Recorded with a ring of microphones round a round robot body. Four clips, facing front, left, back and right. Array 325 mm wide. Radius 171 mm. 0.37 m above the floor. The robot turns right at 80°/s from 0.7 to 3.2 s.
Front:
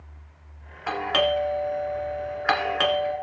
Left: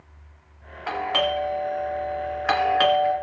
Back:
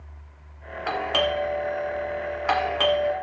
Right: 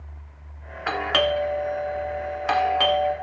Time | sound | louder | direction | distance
0.9 | a doorbell | right 2 dB, front 1 dB | 100° right | 1.4 m